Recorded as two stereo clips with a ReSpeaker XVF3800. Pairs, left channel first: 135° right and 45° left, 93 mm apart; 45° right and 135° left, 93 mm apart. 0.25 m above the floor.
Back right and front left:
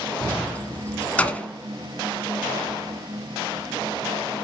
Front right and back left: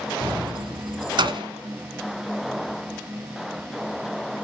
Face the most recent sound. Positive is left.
turn(degrees=150)